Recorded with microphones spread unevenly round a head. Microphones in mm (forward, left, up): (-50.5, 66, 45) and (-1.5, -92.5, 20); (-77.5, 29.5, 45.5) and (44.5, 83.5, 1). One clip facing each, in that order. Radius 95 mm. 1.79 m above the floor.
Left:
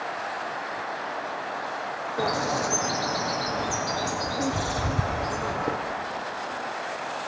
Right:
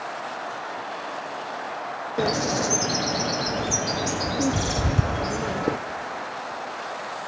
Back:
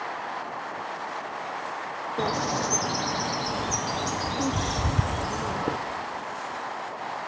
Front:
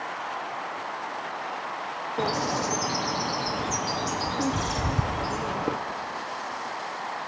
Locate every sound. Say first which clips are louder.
2.2 s a bird: right 3 dB, even; 115° right, 0.6 m